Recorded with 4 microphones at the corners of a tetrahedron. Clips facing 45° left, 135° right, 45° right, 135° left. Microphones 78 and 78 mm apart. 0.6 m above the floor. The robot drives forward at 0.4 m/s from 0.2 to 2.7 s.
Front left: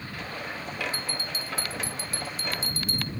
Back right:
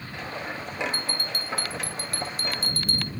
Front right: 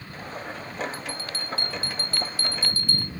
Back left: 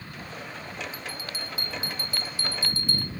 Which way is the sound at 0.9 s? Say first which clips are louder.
Back right 2 dB, front right 2 dB; 150° right.